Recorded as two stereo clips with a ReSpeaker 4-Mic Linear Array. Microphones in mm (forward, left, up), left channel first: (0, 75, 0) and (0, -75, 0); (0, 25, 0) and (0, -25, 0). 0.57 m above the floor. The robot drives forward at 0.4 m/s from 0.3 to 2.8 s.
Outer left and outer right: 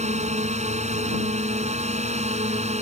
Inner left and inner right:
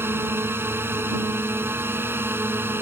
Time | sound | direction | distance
0.0 | a drone | 50° right (ahead or behind) | ?